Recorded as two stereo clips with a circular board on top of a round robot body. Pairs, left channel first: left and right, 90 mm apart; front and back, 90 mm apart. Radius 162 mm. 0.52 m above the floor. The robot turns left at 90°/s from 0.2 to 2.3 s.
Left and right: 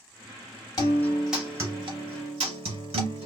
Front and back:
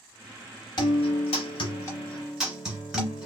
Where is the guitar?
45° left, 0.7 m; by 3.3 s 95° right, 0.7 m.